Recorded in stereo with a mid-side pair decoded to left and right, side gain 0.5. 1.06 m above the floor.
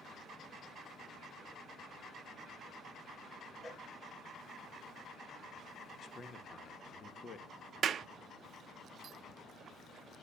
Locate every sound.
3.6 s a cowbell: 30° left, 3.5 m
6.0 s a man speaking: 45° left, 1.3 m
7.8 s a clap: 50° right, 0.6 m